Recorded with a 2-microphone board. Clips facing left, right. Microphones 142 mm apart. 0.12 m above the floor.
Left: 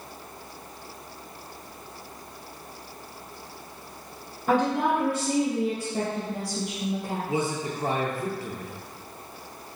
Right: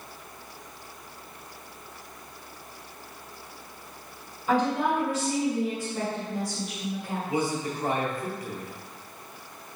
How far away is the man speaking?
About 2 m.